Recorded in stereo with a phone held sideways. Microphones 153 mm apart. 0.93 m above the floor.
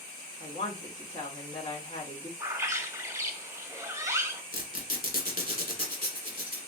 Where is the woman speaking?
45° left (ahead or behind), 2.0 m.